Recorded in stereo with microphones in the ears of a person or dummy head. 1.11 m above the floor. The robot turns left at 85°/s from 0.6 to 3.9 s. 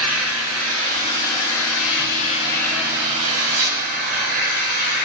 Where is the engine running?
Straight behind, 5 m; by 5.0 s 100° right, 5 m.